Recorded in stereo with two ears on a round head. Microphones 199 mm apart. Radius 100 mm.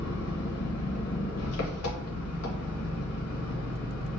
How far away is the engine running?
About 1.0 m.